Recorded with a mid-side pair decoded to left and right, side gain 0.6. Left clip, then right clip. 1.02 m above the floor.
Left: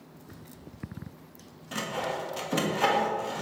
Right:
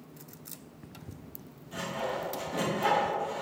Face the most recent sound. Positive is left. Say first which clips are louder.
# left 2 dB
turn(degrees=65)